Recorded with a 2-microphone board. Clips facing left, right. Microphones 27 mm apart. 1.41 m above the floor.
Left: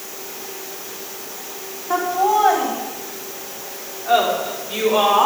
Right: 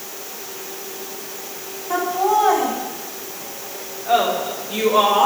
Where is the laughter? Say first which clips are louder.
Left 1 dB; 25° left (ahead or behind), 4.5 m; by 5.3 s 45° left (ahead or behind), 5 m.